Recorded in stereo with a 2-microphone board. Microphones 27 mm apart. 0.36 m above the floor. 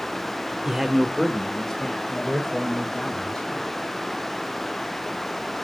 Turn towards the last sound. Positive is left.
turn(degrees=45)  # may be behind; listen again after turning